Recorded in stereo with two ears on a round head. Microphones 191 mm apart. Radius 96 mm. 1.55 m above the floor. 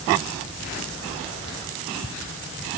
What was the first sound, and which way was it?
Only background noise.